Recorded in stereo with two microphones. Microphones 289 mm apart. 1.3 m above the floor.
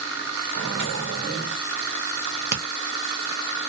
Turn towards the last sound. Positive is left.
turn(degrees=-40)  # may be behind; listen again after turning